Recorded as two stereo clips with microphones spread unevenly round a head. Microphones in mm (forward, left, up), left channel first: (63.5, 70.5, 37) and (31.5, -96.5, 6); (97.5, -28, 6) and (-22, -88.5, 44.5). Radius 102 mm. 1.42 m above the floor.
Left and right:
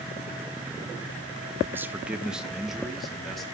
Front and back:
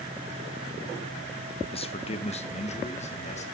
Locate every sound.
1.7 s a man speaking: 20° right, 1.4 m; by 3.4 s 10° right, 3 m